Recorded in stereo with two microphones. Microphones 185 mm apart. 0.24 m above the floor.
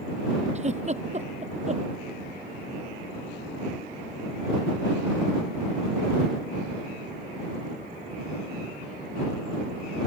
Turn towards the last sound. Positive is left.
turn(degrees=-40)  # may be behind; listen again after turning